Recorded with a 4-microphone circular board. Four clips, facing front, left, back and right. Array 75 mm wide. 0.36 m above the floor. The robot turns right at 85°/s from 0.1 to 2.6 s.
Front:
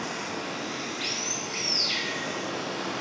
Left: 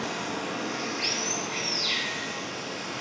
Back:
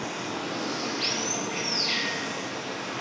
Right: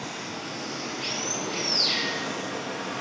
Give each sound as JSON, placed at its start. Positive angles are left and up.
{"t": 0.0, "sound": "running water", "azimuth_deg": 120, "distance_m": 2.5}